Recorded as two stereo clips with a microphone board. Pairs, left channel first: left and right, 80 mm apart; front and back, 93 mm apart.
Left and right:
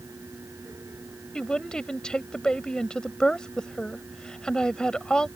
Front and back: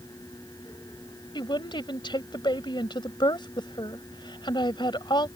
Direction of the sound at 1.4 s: 10° left.